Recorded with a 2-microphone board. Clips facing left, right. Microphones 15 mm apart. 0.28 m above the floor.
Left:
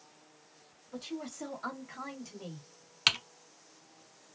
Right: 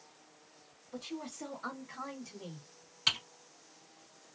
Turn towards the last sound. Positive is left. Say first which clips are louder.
# left 3 dB
turn(degrees=60)  # may be behind; listen again after turning